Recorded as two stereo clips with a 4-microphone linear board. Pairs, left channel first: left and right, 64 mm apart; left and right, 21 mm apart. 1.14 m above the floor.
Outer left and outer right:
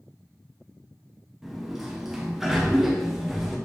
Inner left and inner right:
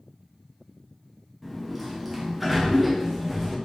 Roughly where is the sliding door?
Centre.